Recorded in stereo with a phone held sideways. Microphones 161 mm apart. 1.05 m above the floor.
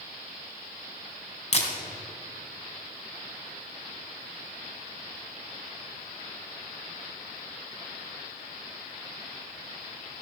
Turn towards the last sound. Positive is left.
turn(degrees=45)  # may be behind; listen again after turning